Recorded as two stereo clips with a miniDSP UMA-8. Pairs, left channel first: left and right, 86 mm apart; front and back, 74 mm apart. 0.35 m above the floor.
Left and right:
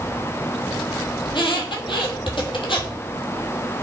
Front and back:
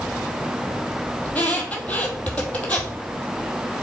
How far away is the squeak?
About 1.5 m.